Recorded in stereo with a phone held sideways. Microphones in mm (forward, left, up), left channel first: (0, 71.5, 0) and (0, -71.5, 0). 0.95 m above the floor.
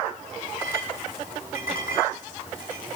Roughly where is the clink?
Left.